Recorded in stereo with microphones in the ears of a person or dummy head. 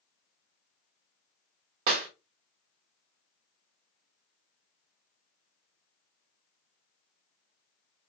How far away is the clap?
About 0.6 m.